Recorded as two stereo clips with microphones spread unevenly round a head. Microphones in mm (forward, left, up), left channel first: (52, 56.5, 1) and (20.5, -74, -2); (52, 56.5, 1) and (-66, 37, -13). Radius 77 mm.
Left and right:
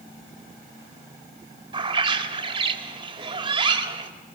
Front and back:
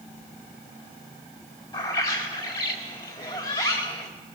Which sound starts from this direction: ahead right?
A bird, at 1.7 s.